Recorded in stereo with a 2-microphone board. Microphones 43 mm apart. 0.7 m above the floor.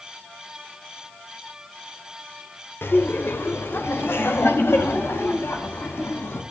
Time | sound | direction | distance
2.8 | laughter | 70° left (ahead or behind) | 3 m